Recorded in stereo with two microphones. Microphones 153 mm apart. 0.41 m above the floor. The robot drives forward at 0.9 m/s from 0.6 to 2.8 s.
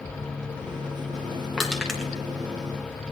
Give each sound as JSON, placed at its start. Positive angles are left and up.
{"t": 1.6, "sound": "crushing", "side_deg": 0, "distance_m": 2.5}